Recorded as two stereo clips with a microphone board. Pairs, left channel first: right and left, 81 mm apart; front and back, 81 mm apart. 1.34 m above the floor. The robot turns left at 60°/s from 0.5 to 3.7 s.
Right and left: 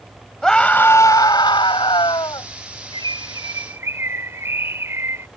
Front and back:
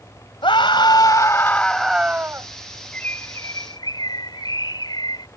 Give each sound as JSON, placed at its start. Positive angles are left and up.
{"t": 0.4, "sound": "a scream", "azimuth_deg": -5}
{"t": 2.9, "sound": "a bird", "azimuth_deg": 80}